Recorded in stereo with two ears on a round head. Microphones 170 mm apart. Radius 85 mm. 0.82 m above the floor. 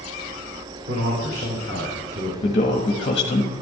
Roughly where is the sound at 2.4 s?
Left.